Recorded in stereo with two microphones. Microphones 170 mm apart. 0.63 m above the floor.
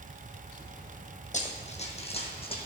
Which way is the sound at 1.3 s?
45° left (ahead or behind).